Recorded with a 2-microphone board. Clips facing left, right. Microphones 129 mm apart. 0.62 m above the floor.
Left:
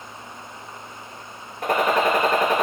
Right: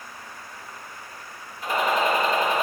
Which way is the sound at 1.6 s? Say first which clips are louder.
Left 3 dB; 65° left (ahead or behind).